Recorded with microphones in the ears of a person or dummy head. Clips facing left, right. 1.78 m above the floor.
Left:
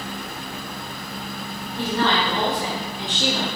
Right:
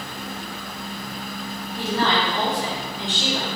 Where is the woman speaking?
10° right (ahead or behind), 2 m; by 3.5 s 35° left (ahead or behind), 1.4 m.